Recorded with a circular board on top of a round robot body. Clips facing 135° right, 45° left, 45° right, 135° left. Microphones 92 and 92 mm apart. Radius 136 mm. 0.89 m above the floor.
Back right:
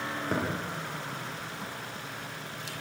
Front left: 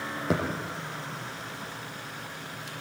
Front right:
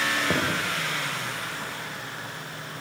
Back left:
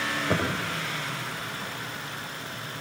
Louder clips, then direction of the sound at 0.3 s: Front left 4 dB, back left 1 dB; 25° left.